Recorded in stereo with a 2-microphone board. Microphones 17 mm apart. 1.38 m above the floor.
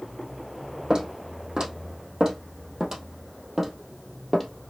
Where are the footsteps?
40° right (ahead or behind), 3 m; by 4.7 s centre (ahead or behind), 1.7 m.